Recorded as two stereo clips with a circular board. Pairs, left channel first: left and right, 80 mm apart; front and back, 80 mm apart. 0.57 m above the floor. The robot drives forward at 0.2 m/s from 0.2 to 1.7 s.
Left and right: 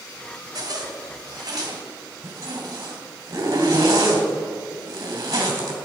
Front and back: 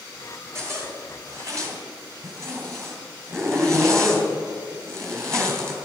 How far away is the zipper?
About 2.5 m.